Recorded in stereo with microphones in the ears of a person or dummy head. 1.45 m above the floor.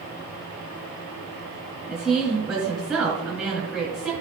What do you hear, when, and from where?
1.9 s a woman speaking: 5° right (ahead or behind), 3 m